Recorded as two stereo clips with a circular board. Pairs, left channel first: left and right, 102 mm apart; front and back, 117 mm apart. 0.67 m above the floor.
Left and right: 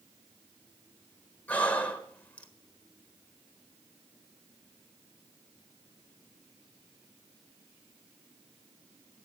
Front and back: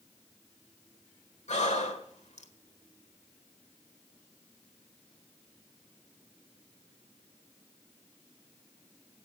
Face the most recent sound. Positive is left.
turn(degrees=15)